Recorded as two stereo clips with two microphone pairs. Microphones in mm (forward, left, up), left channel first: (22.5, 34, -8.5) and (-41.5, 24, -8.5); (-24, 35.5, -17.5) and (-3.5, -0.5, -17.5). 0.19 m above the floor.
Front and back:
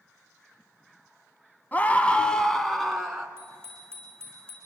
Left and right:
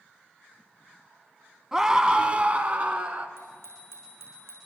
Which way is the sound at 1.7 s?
5° left.